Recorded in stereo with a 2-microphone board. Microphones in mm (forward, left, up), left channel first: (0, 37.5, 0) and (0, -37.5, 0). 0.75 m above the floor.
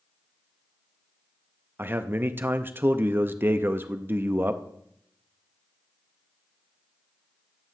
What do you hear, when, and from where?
1.8 s a man speaking: 30° right (ahead or behind), 0.5 m